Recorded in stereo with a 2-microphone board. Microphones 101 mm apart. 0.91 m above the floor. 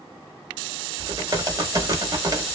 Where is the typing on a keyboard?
35° right (ahead or behind), 1.3 m.